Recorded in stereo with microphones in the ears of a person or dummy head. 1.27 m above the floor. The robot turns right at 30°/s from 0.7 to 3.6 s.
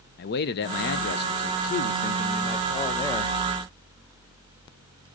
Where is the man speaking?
90° left, 0.6 m; by 3.4 s 170° left, 0.6 m.